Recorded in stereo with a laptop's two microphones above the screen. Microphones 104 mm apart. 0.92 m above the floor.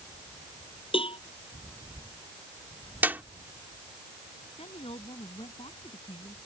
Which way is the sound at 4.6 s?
65° left (ahead or behind).